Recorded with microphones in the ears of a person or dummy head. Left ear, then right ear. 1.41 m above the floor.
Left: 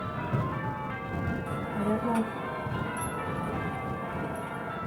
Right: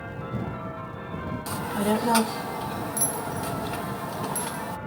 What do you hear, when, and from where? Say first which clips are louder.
1.5 s a child speaking: right 6 dB; 60° right (ahead or behind)